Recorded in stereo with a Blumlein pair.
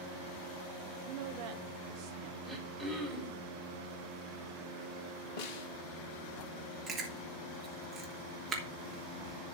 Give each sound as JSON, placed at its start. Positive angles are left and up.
{"t": 1.1, "sound": "a woman speaking", "azimuth_deg": -55, "distance_m": 0.8}
{"t": 2.4, "sound": "throat clearing", "azimuth_deg": 0, "distance_m": 4.5}
{"t": 5.4, "sound": "a snare drum", "azimuth_deg": 45, "distance_m": 1.2}
{"t": 6.9, "sound": "chewing", "azimuth_deg": -25, "distance_m": 3.0}